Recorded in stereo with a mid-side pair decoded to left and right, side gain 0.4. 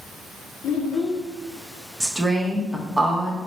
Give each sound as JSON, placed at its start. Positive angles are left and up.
{"t": 0.6, "sound": "a child speaking", "azimuth_deg": 60, "distance_m": 0.6}
{"t": 2.0, "sound": "a woman speaking", "azimuth_deg": -10, "distance_m": 0.9}